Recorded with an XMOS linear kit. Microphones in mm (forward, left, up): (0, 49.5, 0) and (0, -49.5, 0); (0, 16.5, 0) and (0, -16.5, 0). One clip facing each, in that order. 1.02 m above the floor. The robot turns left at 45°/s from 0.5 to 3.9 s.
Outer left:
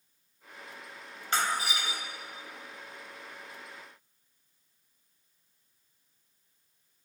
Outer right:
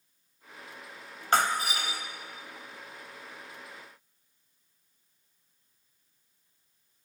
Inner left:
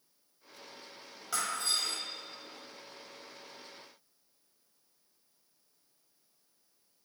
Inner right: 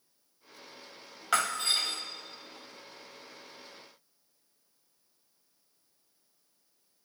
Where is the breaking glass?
100° right, 1.2 m; by 2.0 s 130° right, 1.2 m.